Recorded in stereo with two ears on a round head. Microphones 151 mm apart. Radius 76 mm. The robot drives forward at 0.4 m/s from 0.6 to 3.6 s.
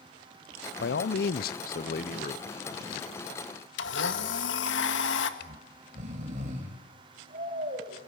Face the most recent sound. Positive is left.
turn(degrees=-45)  # may be behind; listen again after turning